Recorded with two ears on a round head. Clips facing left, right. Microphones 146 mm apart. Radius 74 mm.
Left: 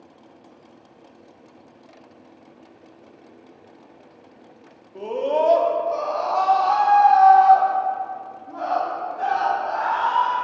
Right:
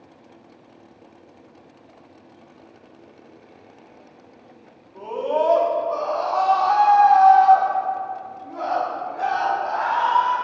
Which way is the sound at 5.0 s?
30° left (ahead or behind).